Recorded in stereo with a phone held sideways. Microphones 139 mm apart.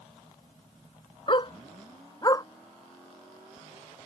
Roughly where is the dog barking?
Left.